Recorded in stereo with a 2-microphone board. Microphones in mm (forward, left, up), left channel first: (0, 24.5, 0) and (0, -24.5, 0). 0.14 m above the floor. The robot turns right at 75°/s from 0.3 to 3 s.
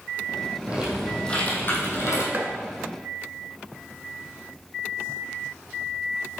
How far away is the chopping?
About 1.2 m.